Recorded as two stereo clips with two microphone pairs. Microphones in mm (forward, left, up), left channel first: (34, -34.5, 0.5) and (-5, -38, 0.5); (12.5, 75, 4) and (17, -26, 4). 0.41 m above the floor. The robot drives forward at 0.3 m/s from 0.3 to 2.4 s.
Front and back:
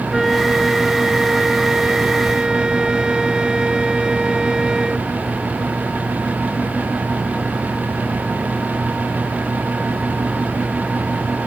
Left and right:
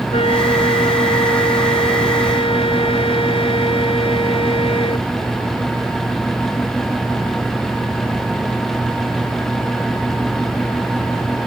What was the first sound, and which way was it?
A flute, 95° left.